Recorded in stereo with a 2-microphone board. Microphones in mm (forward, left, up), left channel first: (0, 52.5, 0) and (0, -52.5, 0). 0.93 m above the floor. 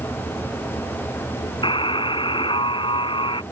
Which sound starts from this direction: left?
A buzzer, at 1.6 s.